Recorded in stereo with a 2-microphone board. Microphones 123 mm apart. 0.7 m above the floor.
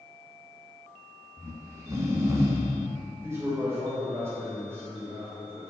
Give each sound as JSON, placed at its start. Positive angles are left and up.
{"t": 1.4, "sound": "snoring", "side_deg": -25, "distance_m": 1.9}
{"t": 3.2, "sound": "a man speaking", "side_deg": -20, "distance_m": 3.0}